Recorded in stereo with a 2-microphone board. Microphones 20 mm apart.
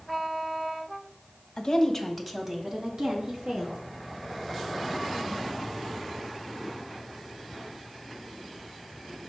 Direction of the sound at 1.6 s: 35° left (ahead or behind).